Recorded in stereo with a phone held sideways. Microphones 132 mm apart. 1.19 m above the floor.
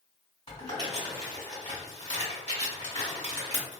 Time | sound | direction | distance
0.5 | crumpling | 50° left (ahead or behind) | 1.6 m